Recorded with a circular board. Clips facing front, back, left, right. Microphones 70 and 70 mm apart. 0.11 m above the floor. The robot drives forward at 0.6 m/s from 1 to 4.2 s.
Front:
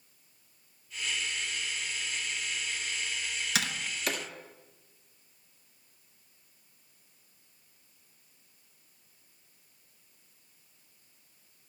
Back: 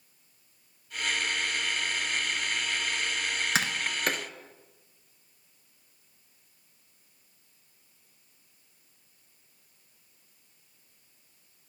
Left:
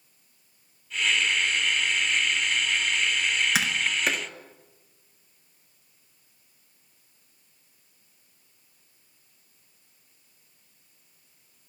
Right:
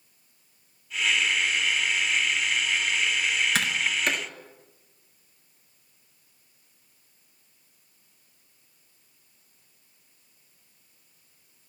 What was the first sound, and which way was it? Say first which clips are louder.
Tapping: back 2 dB, even; 170° left.